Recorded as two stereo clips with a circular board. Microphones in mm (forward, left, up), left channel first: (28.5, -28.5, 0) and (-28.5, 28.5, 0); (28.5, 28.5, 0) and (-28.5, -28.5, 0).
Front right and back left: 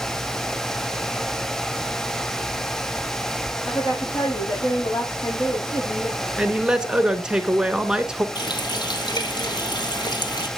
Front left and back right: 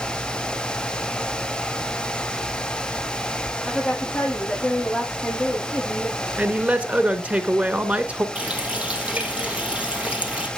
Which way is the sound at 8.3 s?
60° right.